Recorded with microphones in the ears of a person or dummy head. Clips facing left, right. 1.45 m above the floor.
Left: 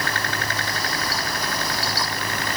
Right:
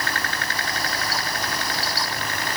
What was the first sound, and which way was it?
Only background noise.